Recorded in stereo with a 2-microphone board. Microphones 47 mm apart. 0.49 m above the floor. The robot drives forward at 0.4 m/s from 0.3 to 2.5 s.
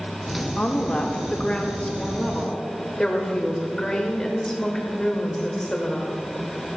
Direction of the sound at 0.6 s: 25° left (ahead or behind).